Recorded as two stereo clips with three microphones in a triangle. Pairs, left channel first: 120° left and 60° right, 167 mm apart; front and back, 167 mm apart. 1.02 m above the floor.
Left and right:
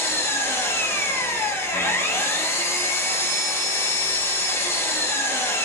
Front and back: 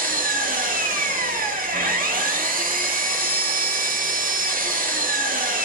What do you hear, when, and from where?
0.0 s an engine running: 170° right, 0.7 m